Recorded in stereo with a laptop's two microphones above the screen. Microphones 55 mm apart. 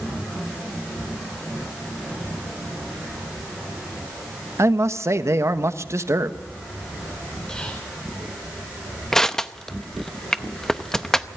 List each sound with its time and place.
4.6 s a man speaking: 60° right (ahead or behind), 1.4 m
7.5 s whispering: 20° left (ahead or behind), 5 m
9.1 s crushing: 10° left (ahead or behind), 0.6 m